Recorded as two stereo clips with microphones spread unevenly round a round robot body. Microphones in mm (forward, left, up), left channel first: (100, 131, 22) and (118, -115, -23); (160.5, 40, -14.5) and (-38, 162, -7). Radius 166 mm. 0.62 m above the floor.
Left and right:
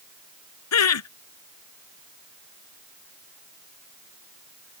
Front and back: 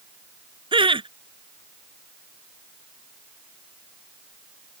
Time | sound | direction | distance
0.7 | laughter | 80° left | ?